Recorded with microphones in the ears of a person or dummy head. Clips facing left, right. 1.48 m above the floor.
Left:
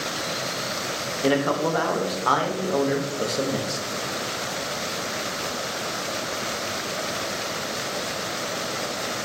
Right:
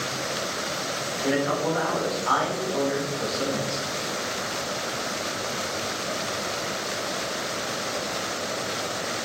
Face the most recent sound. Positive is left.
turn(degrees=65)  # may be behind; listen again after turning